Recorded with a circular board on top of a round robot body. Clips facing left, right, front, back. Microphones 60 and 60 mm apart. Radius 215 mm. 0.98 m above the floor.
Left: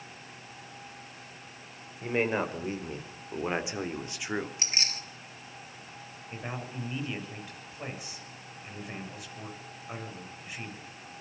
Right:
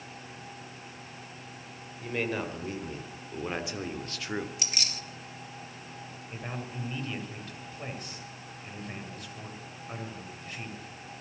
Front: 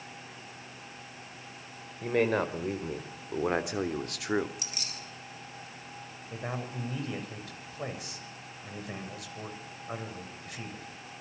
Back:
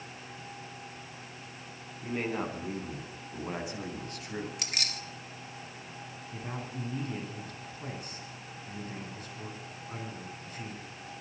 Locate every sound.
2.0 s a man speaking: 30° left, 4.5 m; by 4.5 s 15° left, 2.5 m
4.6 s keys jangling: 150° left, 2.5 m
6.3 s a man speaking: 10° left, 7.5 m